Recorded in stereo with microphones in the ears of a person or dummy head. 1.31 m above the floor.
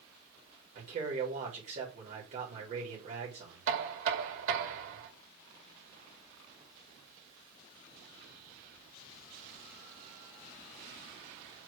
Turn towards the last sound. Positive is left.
turn(degrees=-75)  # may be behind; listen again after turning